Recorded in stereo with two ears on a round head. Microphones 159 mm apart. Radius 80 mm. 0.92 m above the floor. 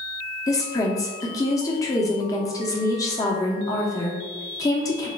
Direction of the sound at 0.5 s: 20° left (ahead or behind).